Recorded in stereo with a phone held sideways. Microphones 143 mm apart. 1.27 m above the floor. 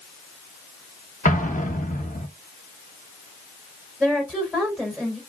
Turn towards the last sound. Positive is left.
turn(degrees=0)  # may be behind; listen again after turning